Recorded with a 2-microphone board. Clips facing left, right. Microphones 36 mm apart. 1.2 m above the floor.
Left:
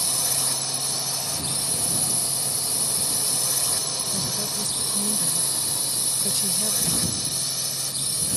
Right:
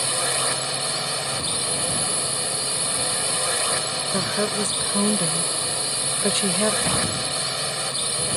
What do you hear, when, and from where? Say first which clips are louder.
0.0 s a drone: right 6 dB; 40° right (ahead or behind)
4.1 s a woman speaking: right 10 dB; 50° right (ahead or behind)
6.8 s a drawer: right 5 dB; 40° right (ahead or behind)